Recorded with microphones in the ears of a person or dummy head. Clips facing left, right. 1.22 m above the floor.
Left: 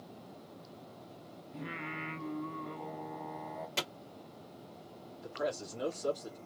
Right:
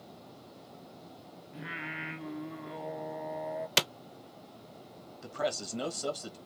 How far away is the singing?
About 2.5 m.